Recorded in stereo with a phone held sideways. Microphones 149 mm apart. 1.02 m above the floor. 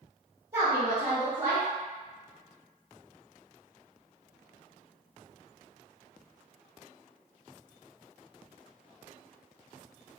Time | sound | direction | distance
0.5 | a woman speaking | 30° right (ahead or behind) | 1.3 m